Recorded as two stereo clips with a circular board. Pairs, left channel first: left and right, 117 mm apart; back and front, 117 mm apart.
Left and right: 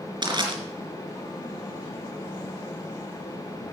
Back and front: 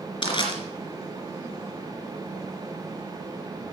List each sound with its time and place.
0.2 s crushing: 140° right, 2.5 m